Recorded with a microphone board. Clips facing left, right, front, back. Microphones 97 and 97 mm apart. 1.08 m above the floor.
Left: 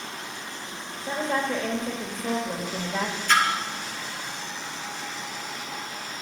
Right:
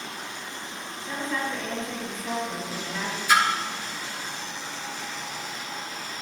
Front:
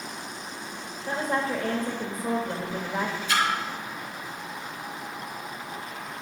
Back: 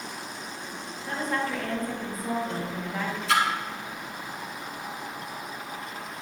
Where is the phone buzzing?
No phone buzzing in this recording.